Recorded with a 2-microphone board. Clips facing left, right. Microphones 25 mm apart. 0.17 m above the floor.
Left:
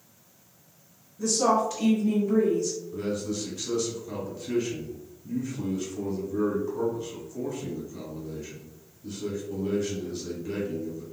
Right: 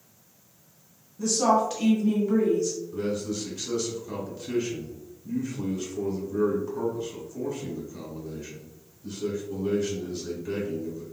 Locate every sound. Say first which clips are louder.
1.2 s a woman speaking: right 1 dB; 20° right (ahead or behind), 1.3 m
2.9 s a man speaking: right 1 dB; 5° right (ahead or behind), 1.0 m